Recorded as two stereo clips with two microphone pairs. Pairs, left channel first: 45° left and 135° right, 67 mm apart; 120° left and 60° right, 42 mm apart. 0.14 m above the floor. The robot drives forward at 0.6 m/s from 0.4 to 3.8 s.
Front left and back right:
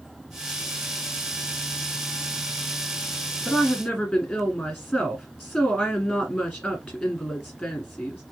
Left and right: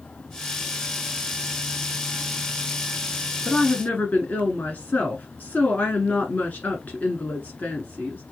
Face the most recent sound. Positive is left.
turn(degrees=135)